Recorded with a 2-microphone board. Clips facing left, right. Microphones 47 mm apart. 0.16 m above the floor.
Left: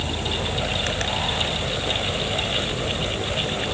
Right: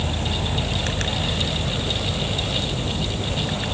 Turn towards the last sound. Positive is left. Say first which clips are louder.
# even
turn(degrees=-40)  # may be behind; listen again after turning